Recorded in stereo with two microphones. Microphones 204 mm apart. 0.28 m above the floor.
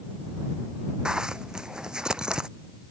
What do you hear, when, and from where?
1.1 s a zipper: 5° right (ahead or behind)